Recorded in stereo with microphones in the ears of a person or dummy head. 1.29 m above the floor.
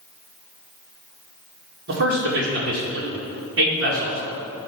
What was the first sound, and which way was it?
A man speaking, 65° right (ahead or behind).